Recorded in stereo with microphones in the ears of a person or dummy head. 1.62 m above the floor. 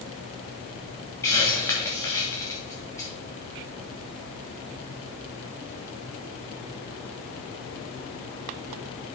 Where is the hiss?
15° left (ahead or behind), 2.5 m.